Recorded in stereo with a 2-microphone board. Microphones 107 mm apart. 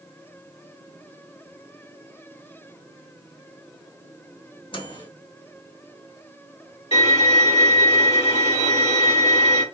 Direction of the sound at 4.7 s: 55° left (ahead or behind).